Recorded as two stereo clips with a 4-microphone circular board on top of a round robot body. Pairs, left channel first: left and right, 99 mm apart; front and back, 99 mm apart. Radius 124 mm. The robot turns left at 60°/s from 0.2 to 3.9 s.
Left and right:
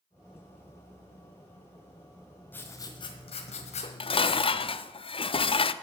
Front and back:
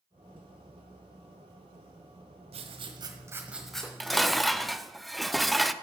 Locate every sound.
2.5 s writing: 165° left, 1.3 m; by 4.3 s 80° left, 1.3 m
3.8 s dishes clattering: 95° left, 0.5 m; by 5.7 s 90° left, 0.5 m